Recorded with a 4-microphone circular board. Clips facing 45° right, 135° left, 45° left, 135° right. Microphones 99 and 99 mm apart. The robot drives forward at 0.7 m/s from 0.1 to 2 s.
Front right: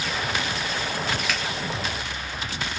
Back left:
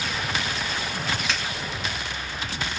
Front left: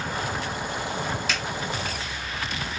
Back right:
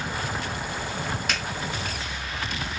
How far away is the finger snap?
About 1.7 m.